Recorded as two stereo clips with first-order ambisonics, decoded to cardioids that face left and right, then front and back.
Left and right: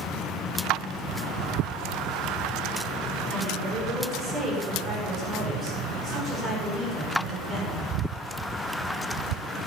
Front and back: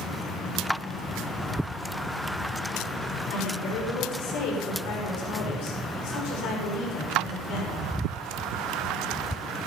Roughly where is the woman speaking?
Ahead right.